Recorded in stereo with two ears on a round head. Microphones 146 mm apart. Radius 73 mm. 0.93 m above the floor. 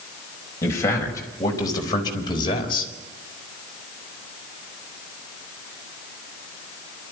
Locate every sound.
0.6 s a man speaking: 15° left (ahead or behind), 5 m; by 2.9 s 35° left (ahead or behind), 4 m